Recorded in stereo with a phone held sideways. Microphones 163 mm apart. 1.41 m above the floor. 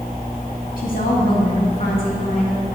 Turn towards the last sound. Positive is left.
turn(degrees=60)  # may be behind; listen again after turning